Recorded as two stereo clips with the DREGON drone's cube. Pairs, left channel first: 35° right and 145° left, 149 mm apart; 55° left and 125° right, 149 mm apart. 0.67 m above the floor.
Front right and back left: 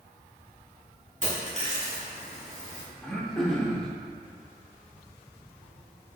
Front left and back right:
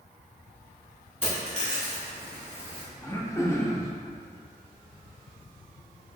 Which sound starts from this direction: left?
A dropped coin, at 1.2 s.